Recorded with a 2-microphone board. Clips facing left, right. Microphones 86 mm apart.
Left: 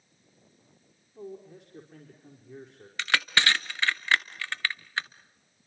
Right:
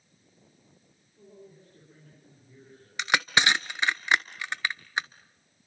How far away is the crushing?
About 0.7 m.